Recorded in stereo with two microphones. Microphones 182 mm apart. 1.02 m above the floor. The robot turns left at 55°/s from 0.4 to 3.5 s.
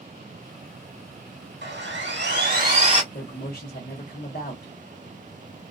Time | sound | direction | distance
1.6 | sawing | 70° right | 1.8 m
3.1 | a man speaking | 50° left (ahead or behind) | 1.1 m